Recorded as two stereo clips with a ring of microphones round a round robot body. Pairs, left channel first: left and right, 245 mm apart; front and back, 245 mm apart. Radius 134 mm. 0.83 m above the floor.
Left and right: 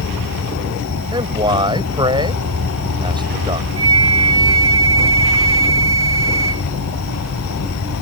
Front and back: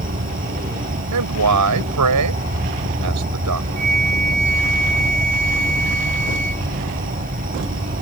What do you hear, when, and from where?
0.0 s an insect: 125° left
1.1 s a man speaking: 165° right
3.8 s a flute: 120° right